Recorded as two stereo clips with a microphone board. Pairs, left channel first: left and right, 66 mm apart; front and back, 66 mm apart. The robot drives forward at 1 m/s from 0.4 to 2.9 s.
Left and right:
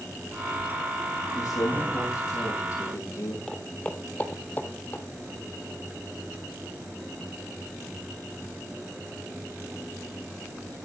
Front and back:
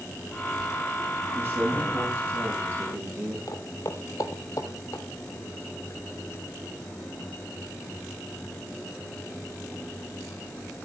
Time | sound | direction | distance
1.4 | a man speaking | 120° left | 10 m
3.5 | footsteps | 10° left | 1.4 m